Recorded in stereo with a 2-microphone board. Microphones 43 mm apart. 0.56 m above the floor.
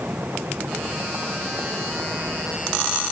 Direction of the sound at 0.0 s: 50° right (ahead or behind).